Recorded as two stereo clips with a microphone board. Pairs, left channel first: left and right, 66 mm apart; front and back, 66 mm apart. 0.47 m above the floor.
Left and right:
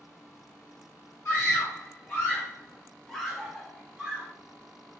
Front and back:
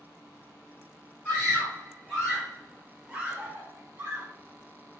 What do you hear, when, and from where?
1.2 s a scream: 65° left, 1.3 m; by 4.3 s 145° right, 1.2 m